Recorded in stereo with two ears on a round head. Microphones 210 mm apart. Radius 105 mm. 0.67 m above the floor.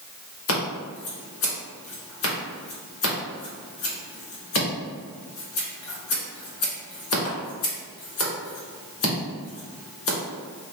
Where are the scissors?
60° left (ahead or behind), 1.0 m.